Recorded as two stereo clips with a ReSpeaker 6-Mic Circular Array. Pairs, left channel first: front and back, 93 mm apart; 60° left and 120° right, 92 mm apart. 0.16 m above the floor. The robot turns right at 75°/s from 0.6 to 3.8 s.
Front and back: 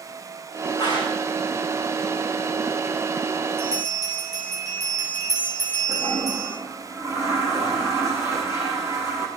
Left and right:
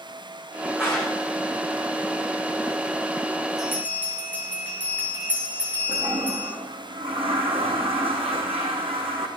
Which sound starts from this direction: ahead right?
A clap, at 0.8 s.